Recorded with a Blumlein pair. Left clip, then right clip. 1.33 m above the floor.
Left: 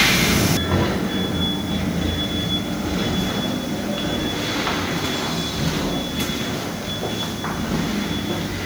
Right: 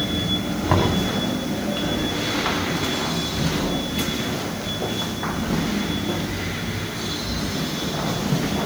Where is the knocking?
70° right, 3.5 m.